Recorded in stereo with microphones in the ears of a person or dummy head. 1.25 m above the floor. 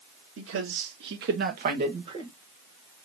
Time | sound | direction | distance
0.4 | a man speaking | 75° right (ahead or behind) | 1.8 m